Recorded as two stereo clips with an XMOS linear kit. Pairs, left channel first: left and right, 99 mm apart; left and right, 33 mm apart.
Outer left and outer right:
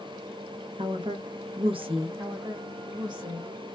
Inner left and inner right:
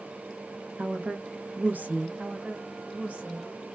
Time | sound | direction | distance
0.8 | a woman speaking | 60° right (ahead or behind) | 0.7 m
2.2 | a woman speaking | 45° right (ahead or behind) | 1.6 m